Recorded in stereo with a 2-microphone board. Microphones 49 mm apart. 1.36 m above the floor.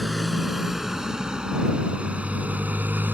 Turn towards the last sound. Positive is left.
turn(degrees=-40)  # may be behind; listen again after turning